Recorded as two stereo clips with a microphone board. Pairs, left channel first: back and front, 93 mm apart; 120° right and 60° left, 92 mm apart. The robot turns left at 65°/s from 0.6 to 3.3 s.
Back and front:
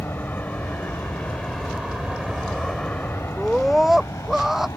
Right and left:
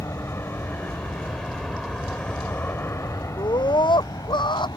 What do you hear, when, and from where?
0.0 s an aircraft: 135° right
3.4 s a scream: 85° right